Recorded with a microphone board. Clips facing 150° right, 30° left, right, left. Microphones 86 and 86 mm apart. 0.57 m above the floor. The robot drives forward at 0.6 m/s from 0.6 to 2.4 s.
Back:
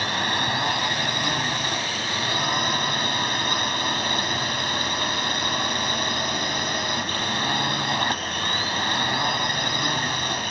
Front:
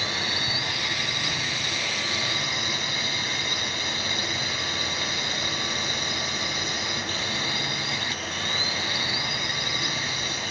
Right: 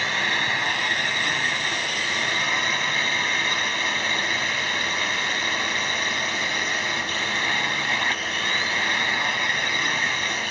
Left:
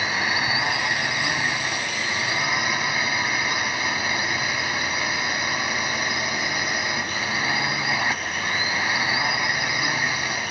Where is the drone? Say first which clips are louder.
Back 6 dB, left 1 dB; 170° left.